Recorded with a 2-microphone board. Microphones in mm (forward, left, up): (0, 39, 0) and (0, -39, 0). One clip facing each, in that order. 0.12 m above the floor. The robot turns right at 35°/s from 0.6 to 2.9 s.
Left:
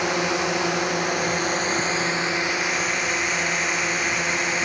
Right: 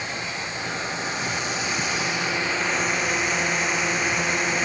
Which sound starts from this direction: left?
A drone, at 0.0 s.